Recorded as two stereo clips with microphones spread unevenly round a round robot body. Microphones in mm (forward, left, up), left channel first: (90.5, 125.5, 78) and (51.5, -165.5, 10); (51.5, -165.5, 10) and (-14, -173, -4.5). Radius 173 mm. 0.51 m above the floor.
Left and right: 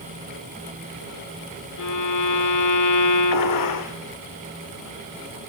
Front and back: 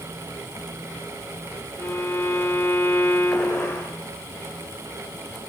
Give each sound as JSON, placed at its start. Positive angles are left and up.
{"t": 1.8, "sound": "a violin", "azimuth_deg": 80, "distance_m": 2.0}
{"t": 3.3, "sound": "a gunshot", "azimuth_deg": 95, "distance_m": 2.0}